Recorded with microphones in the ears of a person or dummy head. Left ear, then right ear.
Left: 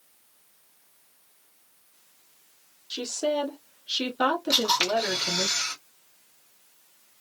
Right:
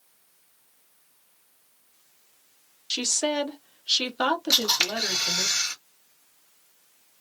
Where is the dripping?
No dripping in this recording.